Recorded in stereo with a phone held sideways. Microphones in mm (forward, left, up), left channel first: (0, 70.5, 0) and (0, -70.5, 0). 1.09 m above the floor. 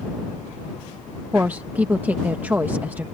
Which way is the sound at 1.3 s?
15° right (ahead or behind).